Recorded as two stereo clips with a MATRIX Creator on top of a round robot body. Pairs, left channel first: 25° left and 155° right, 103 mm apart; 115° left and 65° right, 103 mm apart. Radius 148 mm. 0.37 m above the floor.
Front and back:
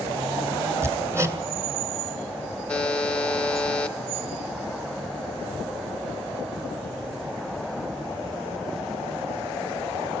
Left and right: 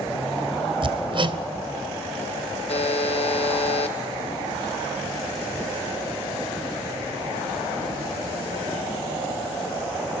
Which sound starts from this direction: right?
Hammering, at 0.8 s.